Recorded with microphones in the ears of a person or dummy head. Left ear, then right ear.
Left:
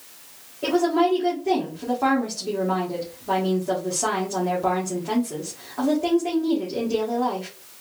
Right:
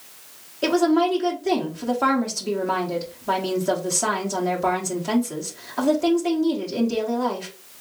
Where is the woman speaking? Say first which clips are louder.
Right 1 dB; 75° right (ahead or behind), 1.2 m.